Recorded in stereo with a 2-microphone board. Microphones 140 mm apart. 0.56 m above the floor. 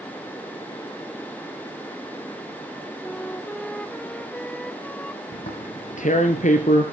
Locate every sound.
3.0 s a flute: 5° left (ahead or behind), 1.7 m
5.3 s tearing paper: 65° left (ahead or behind), 2.5 m